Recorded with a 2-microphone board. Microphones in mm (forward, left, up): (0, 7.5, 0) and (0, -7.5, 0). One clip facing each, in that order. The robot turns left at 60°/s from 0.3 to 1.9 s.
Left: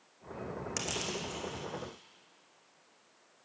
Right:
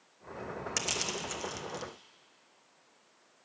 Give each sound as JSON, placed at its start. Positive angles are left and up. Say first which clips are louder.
{"t": 0.8, "sound": "crushing", "louder": "right 3 dB", "side_deg": -15, "distance_m": 0.9}